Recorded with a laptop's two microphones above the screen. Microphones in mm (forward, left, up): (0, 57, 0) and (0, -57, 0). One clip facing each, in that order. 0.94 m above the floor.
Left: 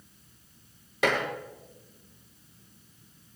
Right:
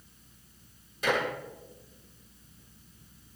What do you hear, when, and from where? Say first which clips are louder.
1.0 s dishes clattering: left 2 dB; 85° left, 5.5 m